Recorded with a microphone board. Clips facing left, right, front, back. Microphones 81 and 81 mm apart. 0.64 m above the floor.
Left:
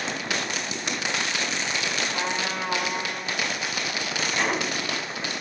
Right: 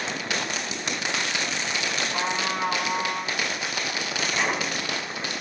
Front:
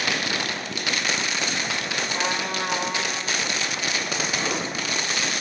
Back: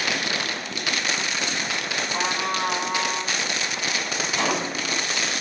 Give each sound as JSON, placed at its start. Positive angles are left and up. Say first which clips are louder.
{"t": 2.1, "sound": "a trumpet", "louder": "right 1 dB, back 2 dB", "azimuth_deg": -140, "distance_m": 4.5}
{"t": 4.4, "sound": "a gunshot", "louder": "left 1 dB, back 2 dB", "azimuth_deg": -175, "distance_m": 1.8}